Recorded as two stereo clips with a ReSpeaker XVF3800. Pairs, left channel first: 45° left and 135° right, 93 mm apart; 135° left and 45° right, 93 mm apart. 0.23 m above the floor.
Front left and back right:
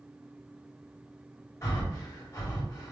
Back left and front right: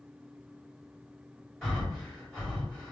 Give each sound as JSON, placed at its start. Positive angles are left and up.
{"t": 1.6, "sound": "breathing", "azimuth_deg": 45, "distance_m": 1.9}